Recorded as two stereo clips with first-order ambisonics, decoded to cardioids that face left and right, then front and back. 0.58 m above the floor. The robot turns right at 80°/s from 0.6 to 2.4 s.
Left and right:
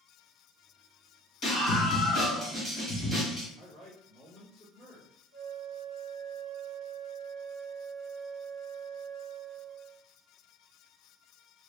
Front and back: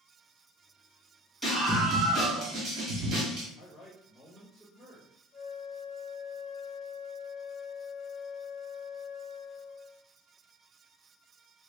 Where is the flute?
110° left, 1.0 m.